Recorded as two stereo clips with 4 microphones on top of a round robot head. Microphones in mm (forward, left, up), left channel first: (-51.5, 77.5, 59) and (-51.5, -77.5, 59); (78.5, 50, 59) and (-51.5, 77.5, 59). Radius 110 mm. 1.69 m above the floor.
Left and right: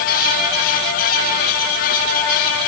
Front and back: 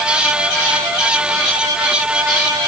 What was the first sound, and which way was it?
Only background noise.